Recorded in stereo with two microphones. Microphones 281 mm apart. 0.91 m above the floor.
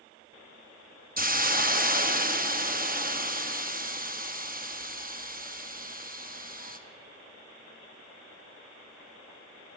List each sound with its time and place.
1.2 s a hiss: 30° right (ahead or behind), 0.8 m